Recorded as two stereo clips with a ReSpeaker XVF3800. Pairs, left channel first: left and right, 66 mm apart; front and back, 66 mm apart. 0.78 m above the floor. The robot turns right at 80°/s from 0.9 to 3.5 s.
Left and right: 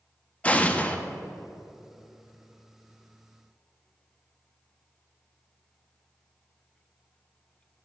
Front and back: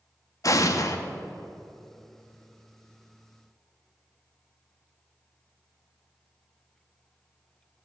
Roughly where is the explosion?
Ahead left.